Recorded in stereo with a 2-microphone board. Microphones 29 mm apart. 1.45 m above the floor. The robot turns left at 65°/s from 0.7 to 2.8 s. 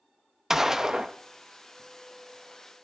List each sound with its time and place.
0.5 s a gunshot: 15° right (ahead or behind), 0.8 m; by 1.1 s 30° right (ahead or behind), 0.8 m